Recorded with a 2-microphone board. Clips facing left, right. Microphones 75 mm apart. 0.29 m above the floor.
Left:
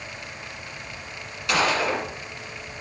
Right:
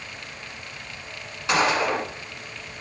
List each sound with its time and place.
1.5 s a gunshot: 30° right (ahead or behind), 1.4 m